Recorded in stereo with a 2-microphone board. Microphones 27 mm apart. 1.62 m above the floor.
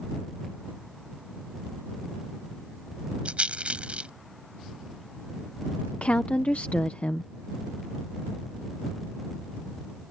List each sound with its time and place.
3.2 s a rattle: 45° right (ahead or behind)
5.9 s a woman speaking: 50° left (ahead or behind)